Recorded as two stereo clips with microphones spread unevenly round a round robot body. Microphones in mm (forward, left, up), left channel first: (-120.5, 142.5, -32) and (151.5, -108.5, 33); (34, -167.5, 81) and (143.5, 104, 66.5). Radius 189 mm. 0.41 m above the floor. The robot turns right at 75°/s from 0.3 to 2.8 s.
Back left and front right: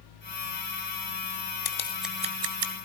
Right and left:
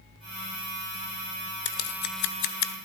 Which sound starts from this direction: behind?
Scissors, at 1.6 s.